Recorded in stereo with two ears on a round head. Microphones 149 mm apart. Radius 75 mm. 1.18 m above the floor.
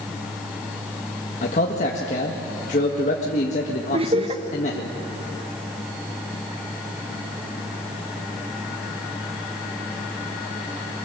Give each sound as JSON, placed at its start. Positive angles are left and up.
{"t": 1.4, "sound": "a man speaking", "side_deg": 45, "distance_m": 1.8}
{"t": 3.9, "sound": "laughter", "side_deg": -35, "distance_m": 1.5}